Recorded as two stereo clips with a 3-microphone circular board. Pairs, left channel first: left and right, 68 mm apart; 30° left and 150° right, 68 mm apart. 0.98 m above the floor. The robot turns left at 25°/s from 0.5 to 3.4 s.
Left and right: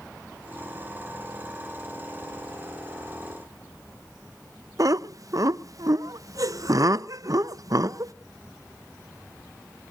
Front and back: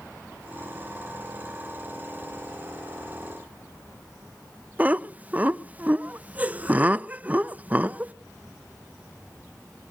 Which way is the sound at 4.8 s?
85° right.